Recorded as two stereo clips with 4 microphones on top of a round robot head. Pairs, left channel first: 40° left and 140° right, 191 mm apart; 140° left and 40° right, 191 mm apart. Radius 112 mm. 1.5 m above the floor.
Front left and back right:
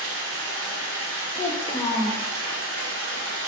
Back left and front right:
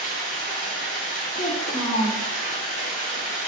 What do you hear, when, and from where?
0.0 s running water: 165° right, 1.3 m
1.4 s a child speaking: 100° left, 0.6 m